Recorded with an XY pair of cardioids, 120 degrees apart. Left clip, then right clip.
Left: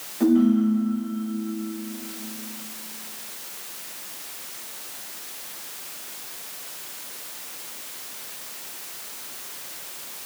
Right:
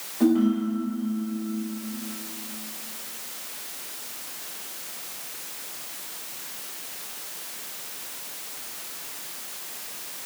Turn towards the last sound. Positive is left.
turn(degrees=-5)